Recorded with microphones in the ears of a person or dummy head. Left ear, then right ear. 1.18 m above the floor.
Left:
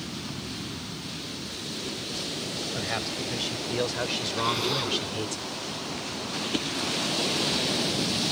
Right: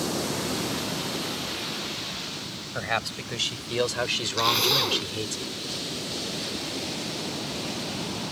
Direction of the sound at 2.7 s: 35° right (ahead or behind).